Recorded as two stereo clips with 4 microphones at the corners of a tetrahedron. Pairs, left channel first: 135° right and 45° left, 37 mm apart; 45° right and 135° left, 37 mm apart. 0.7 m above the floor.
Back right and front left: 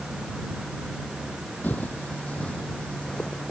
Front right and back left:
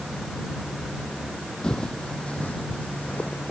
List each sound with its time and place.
1.6 s footsteps: 115° right; by 3.5 s 70° right